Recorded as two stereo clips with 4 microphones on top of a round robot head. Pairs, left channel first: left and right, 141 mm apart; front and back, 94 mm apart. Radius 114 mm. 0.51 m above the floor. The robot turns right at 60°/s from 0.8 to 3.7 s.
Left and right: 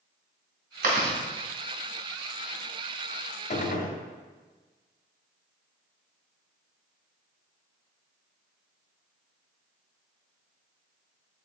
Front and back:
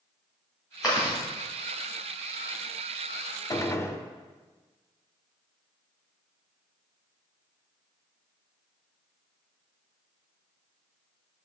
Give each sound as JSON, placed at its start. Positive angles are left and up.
{"t": 0.8, "sound": "chewing", "azimuth_deg": -95, "distance_m": 2.0}
{"t": 3.5, "sound": "a gunshot", "azimuth_deg": 50, "distance_m": 0.8}